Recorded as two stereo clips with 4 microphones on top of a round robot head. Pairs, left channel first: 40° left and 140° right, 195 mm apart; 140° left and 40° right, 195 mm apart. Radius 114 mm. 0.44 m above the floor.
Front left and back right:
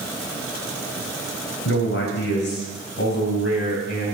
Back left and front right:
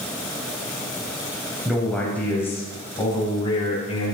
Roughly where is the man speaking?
Ahead left.